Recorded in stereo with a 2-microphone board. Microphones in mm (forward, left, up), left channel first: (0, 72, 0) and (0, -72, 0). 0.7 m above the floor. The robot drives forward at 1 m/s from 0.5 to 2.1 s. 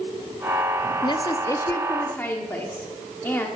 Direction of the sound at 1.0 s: 30° left (ahead or behind).